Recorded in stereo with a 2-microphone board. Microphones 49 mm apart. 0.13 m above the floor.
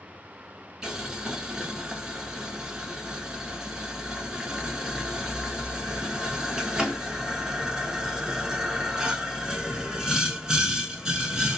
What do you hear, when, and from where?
0.8 s boiling: 15° right (ahead or behind), 0.6 m